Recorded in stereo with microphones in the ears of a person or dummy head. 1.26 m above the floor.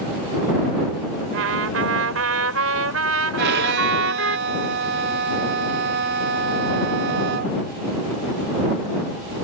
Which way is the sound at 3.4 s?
55° right (ahead or behind).